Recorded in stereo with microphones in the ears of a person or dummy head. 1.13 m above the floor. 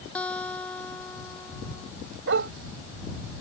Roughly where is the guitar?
Centre.